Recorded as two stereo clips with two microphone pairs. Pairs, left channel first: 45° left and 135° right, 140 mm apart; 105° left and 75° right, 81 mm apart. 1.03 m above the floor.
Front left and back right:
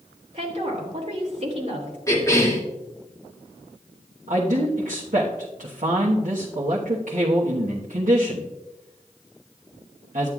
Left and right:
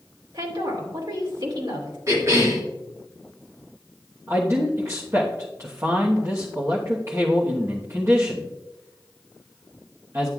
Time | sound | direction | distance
0.3 | a woman speaking | 95° right | 2.5 m
2.1 | a cough | 25° right | 2.5 m
4.3 | a man speaking | 125° right | 1.1 m